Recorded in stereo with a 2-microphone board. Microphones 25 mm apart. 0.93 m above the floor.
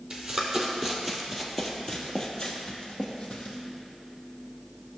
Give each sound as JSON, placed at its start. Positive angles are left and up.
{"t": 0.1, "sound": "running footsteps", "side_deg": -20, "distance_m": 1.7}